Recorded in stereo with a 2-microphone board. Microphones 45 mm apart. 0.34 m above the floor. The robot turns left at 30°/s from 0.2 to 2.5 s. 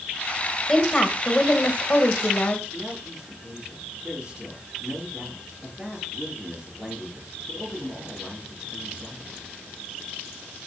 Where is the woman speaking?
160° left, 1.7 m; by 2.6 s 105° left, 1.7 m.